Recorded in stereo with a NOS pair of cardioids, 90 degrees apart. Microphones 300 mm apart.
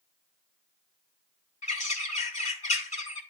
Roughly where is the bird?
Ahead.